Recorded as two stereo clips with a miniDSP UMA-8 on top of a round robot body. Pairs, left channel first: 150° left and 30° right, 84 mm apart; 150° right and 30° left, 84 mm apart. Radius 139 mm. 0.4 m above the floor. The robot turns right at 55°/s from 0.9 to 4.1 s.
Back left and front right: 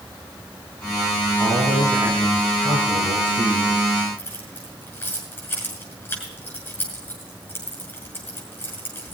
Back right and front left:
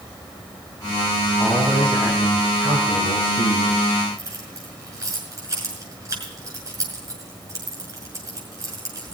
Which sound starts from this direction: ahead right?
A man speaking, at 1.4 s.